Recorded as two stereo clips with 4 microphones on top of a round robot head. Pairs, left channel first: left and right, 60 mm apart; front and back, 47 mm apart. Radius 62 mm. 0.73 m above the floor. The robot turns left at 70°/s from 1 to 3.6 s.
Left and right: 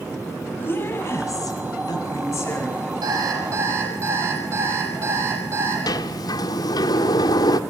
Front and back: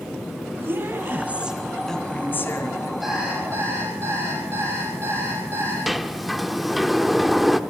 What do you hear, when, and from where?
0.6 s a woman speaking: 140° left, 6 m; by 2.9 s 5° left, 6 m
3.0 s an alarm clock: 90° right, 9.5 m; by 5.8 s 135° right, 9.5 m
5.9 s a sliding door: 90° left, 1.2 m